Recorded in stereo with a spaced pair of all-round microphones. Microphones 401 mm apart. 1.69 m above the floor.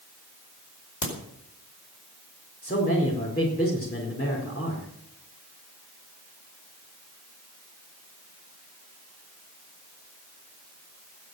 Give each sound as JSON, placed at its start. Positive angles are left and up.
{"t": 1.0, "sound": "a crack", "side_deg": 50, "distance_m": 4.5}
{"t": 2.6, "sound": "a man speaking", "side_deg": 25, "distance_m": 4.5}